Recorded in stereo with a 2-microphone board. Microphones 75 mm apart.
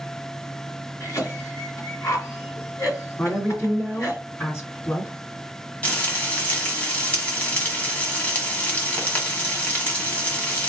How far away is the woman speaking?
About 2 m.